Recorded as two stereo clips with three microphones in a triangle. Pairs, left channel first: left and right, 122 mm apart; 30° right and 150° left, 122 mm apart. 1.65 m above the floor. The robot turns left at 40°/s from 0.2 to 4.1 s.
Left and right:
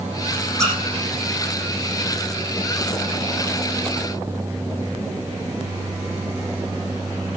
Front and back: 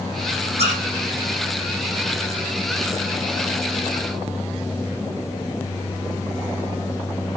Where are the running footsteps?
No running footsteps in this recording.